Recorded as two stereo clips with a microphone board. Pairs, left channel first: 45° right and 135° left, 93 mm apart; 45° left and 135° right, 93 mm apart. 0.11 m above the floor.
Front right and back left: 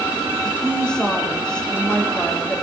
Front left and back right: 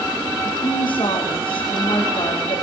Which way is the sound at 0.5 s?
35° left.